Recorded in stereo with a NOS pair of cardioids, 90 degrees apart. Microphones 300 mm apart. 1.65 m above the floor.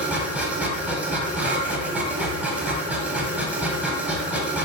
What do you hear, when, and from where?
0.0 s a machine running: 5° right, 0.8 m